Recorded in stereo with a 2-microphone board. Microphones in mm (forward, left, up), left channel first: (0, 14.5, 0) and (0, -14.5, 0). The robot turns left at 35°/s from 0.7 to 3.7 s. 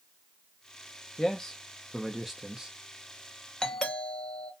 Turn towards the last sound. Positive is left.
turn(degrees=25)  # may be behind; listen again after turning